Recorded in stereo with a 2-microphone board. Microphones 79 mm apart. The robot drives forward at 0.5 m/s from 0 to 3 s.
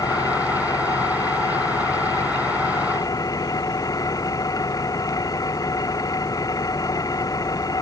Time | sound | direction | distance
0.0 | an engine running | 55° left (ahead or behind) | ?